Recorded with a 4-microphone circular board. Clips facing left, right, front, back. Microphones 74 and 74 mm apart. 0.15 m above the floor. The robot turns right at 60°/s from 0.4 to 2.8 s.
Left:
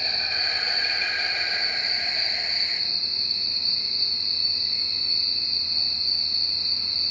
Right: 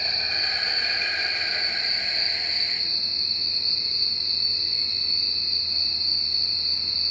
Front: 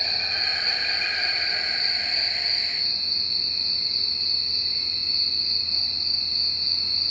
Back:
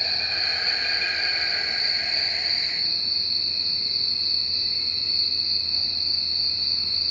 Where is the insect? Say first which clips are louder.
Even, even; 75° right, 1.3 m; by 7.1 s 65° left, 1.3 m.